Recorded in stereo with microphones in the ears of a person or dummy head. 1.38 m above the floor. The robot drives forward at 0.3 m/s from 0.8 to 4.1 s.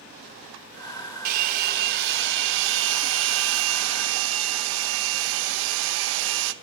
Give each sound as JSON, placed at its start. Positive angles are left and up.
{"t": 1.2, "sound": "a hair dryer", "side_deg": -50, "distance_m": 1.1}